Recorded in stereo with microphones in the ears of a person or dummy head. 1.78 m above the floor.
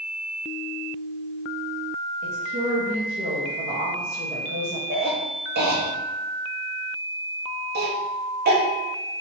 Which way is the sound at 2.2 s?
50° right (ahead or behind).